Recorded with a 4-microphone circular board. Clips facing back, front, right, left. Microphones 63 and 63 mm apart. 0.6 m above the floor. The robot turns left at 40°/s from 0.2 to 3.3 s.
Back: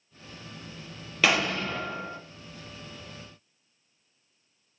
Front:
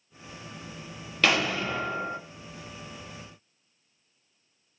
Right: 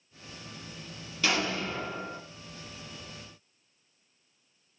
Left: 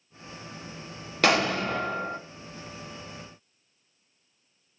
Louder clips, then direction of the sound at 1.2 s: Even, left 6 dB; 95° left.